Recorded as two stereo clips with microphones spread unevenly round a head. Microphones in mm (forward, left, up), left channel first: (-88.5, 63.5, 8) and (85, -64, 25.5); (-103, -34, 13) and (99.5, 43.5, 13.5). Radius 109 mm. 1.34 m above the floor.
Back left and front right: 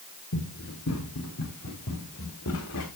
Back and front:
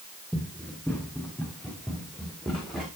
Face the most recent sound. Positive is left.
turn(degrees=115)